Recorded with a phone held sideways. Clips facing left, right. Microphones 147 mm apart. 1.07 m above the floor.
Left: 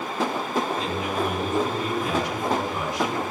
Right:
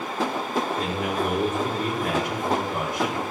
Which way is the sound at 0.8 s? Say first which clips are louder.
Even; 55° right (ahead or behind).